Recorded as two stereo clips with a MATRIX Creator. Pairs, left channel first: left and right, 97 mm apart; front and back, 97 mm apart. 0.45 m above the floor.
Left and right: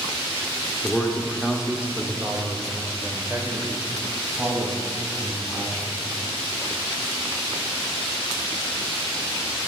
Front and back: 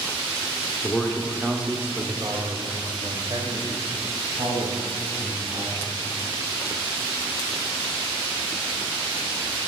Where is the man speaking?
30° left, 0.9 m; by 6.0 s 150° right, 3.5 m.